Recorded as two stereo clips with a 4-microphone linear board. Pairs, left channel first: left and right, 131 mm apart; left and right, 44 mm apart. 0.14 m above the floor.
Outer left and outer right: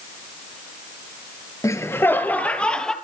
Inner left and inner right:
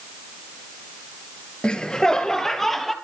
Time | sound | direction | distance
1.6 | laughter | 25° left (ahead or behind) | 2.5 m